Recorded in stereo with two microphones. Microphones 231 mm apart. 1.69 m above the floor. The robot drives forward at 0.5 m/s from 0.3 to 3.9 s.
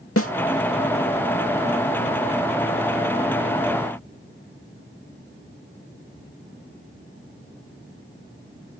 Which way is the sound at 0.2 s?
75° left (ahead or behind).